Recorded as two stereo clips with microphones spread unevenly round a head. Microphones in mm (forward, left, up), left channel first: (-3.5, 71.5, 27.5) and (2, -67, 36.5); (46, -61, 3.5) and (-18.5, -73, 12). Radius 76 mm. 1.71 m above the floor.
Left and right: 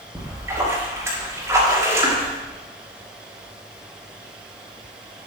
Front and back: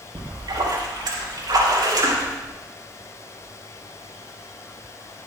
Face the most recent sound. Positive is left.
turn(degrees=-160)